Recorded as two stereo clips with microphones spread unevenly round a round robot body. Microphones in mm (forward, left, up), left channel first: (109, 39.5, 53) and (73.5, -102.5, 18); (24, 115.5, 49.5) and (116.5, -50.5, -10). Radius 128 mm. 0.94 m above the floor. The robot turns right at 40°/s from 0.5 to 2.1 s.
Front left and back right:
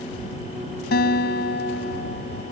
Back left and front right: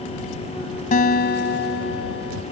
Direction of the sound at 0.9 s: 75° left.